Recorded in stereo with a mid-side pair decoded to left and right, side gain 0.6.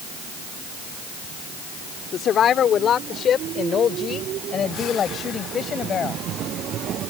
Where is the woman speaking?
50° left; by 6.2 s 40° left.